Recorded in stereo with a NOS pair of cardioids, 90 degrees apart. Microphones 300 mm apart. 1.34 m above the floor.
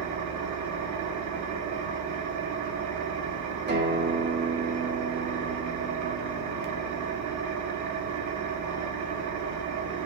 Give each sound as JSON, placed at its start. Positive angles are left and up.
{"t": 0.0, "sound": "an engine running", "azimuth_deg": -70, "distance_m": 1.3}
{"t": 3.7, "sound": "a guitar", "azimuth_deg": -35, "distance_m": 3.0}